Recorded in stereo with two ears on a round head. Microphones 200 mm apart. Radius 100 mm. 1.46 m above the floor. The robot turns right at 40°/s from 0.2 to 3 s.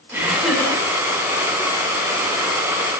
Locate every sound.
0.1 s laughter: 10° right (ahead or behind), 5.5 m; by 0.8 s 15° left (ahead or behind), 5.5 m